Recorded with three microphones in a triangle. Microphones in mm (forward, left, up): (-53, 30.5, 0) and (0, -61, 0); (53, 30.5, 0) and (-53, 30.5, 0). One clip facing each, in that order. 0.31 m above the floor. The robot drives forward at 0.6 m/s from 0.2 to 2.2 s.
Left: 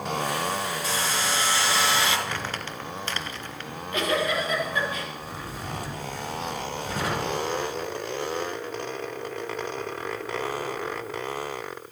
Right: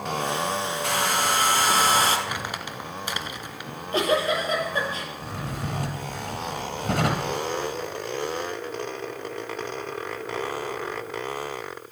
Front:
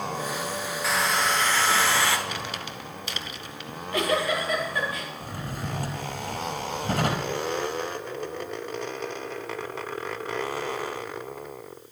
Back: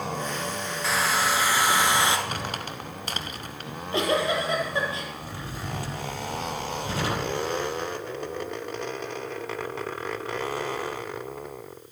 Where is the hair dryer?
90° right, 2 m; by 2.2 s 110° right, 2 m.